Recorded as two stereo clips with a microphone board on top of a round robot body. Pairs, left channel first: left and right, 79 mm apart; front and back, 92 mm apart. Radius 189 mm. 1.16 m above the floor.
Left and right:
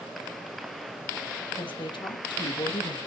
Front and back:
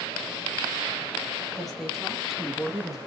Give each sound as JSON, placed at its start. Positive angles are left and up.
{"t": 1.6, "sound": "a woman speaking", "azimuth_deg": 90, "distance_m": 3.5}